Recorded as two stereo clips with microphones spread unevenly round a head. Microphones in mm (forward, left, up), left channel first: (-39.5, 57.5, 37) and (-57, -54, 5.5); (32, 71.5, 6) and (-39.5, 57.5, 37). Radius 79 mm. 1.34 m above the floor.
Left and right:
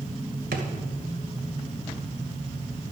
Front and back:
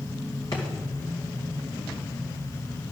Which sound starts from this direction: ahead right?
A drawer, at 0.5 s.